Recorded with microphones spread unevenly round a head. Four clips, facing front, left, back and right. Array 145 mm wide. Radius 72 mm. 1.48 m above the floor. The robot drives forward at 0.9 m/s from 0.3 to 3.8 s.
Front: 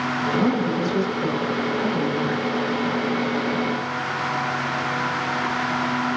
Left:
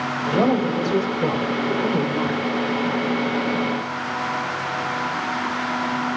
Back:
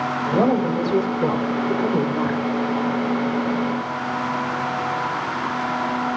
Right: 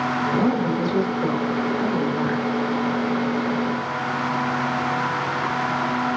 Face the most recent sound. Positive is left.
turn(degrees=150)